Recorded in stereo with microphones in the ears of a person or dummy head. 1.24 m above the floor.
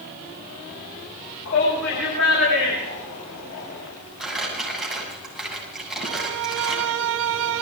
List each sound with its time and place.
1.4 s a shout: 65° left (ahead or behind), 6.5 m; by 3.9 s 80° left, 6 m
4.2 s crumpling: centre (ahead or behind), 7.5 m
6.0 s a violin: 65° right (ahead or behind), 1.2 m